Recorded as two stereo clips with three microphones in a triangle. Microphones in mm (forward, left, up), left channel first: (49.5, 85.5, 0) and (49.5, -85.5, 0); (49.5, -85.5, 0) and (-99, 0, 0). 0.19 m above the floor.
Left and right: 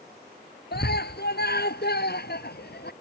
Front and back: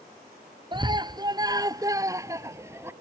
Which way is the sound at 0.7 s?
90° left.